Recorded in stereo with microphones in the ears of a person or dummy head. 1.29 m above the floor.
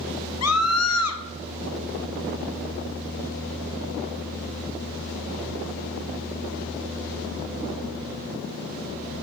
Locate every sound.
0.4 s a scream: 70° left (ahead or behind), 1.4 m